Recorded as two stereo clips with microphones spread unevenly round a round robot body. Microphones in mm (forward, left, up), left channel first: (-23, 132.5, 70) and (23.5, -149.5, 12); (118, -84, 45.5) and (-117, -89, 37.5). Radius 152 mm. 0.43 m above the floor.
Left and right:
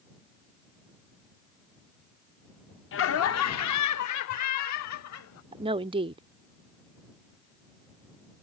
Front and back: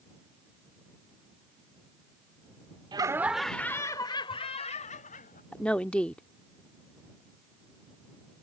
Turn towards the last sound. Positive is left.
turn(degrees=-85)